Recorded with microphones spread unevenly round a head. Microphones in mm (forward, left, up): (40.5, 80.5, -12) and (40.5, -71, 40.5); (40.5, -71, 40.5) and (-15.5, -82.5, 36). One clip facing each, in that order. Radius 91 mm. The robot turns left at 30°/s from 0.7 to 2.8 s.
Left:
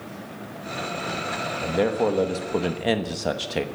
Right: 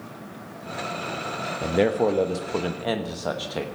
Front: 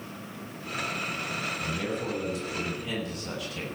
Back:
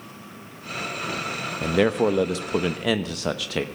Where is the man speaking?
160° right, 1.0 m; by 3.6 s 165° left, 1.0 m.